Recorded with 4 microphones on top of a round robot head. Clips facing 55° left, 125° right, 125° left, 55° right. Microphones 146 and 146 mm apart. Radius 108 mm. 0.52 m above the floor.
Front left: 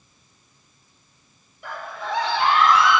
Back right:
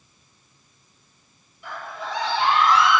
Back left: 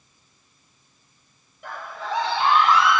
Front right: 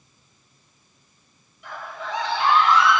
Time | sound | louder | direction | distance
1.6 | a scream | front left 2 dB, back left 2 dB | 85° left | 2 m